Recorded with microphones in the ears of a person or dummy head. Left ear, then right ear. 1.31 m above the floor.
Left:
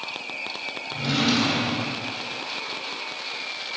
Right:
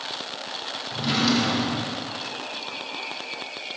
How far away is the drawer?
About 1.4 m.